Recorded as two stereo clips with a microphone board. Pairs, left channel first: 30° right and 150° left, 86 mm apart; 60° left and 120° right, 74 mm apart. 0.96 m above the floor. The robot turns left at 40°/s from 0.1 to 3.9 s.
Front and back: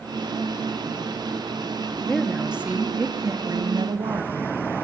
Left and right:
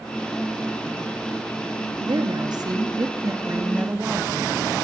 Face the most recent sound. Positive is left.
turn(degrees=175)